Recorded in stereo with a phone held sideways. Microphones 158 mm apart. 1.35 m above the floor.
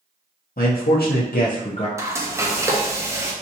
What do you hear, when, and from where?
0.6 s a man speaking: 70° left (ahead or behind), 0.8 m; by 1.9 s 35° left (ahead or behind), 0.6 m
2.0 s frying: 20° right (ahead or behind), 0.6 m